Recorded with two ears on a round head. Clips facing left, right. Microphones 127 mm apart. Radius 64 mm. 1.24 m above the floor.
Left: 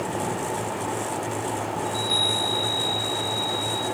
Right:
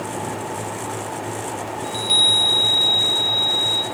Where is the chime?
30° right (ahead or behind), 0.8 m.